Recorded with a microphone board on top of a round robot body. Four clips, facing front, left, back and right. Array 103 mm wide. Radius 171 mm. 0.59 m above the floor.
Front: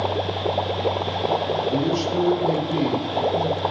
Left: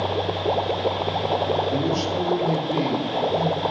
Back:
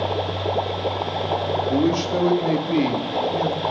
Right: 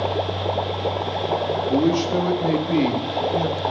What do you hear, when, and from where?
1.7 s a man speaking: 135° right, 1.8 m